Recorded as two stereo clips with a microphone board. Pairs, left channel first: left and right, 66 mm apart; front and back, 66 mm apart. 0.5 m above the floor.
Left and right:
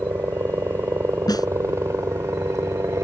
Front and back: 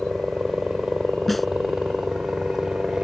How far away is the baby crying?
I don't hear a baby crying.